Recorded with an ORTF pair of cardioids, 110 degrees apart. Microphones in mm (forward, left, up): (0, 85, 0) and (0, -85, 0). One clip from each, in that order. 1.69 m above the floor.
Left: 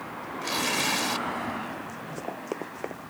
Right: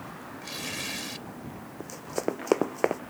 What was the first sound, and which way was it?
Tearing paper, 40° left.